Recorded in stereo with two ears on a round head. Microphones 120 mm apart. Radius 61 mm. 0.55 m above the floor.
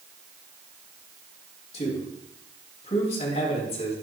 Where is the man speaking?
50° left (ahead or behind), 3.5 m.